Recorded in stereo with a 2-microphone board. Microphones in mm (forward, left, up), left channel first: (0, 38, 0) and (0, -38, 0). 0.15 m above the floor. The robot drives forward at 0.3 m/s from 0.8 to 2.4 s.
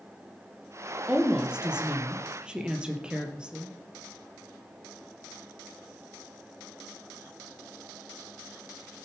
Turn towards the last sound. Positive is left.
turn(degrees=-10)  # may be behind; listen again after turning